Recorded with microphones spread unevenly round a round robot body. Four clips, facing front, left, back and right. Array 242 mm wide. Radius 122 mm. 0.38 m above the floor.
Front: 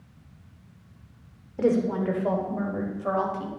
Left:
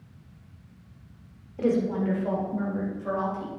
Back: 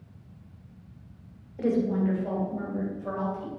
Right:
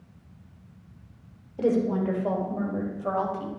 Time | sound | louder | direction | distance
1.6 | a woman speaking | right 1 dB, front 2 dB | 20° right | 1.5 m